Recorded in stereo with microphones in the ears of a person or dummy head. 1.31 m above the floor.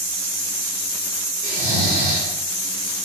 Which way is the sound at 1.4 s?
15° right (ahead or behind).